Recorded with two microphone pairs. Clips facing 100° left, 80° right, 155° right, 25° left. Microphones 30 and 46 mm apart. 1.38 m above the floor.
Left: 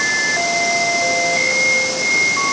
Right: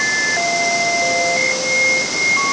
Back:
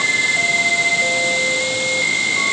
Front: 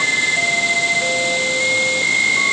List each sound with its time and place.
Only background noise.